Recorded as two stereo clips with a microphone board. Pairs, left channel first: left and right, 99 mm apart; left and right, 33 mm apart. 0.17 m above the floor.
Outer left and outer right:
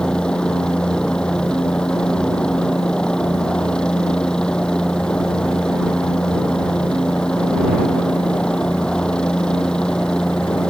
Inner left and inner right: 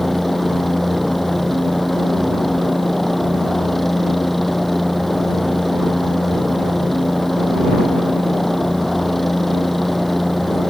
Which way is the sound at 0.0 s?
10° left (ahead or behind).